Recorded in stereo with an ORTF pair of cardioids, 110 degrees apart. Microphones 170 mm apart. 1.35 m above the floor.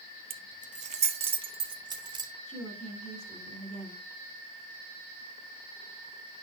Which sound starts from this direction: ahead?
A woman speaking, at 2.5 s.